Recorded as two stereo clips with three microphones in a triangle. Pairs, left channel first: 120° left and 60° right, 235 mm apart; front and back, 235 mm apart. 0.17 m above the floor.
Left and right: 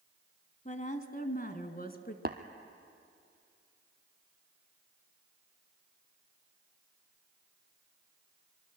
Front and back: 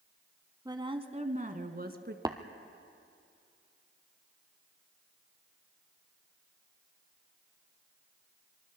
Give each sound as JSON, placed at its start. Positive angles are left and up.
{"t": 0.7, "sound": "a woman speaking", "azimuth_deg": 120, "distance_m": 1.2}
{"t": 2.2, "sound": "tapping", "azimuth_deg": -105, "distance_m": 1.2}